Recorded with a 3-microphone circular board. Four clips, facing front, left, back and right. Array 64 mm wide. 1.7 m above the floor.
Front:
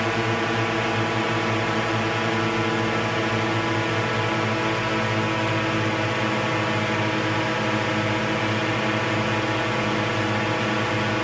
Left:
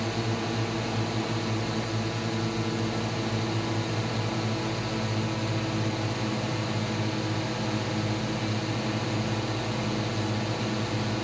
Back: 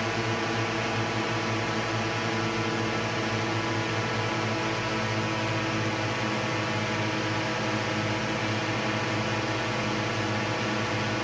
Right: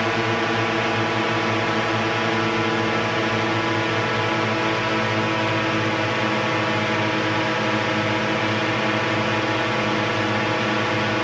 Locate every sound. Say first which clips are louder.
0.0 s a drone: right 9 dB, front 5 dB; 65° right